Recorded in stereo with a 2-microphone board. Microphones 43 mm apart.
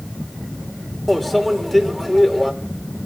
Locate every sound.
1.1 s a microwave: 5° left (ahead or behind), 3 m